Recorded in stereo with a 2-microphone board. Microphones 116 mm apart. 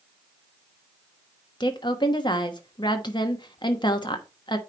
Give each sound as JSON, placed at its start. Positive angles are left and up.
{"t": 1.6, "sound": "a woman speaking", "side_deg": 40, "distance_m": 1.1}